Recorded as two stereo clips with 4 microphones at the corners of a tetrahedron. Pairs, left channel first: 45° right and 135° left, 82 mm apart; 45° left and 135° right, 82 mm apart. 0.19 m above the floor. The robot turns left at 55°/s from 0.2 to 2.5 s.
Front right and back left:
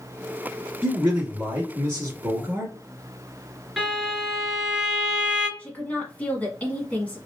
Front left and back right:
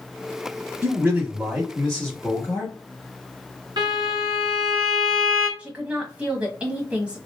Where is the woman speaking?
80° right, 1.2 m.